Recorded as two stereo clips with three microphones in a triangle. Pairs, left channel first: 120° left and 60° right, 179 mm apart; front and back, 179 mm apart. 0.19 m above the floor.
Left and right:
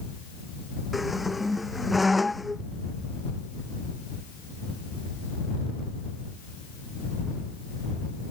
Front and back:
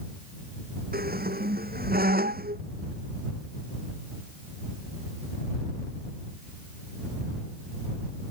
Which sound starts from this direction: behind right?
A squeak, at 0.9 s.